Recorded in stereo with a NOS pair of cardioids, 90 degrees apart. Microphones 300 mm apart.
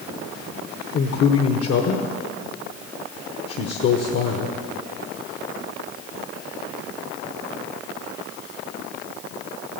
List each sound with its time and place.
0.9 s a man speaking: 55° left, 1.1 m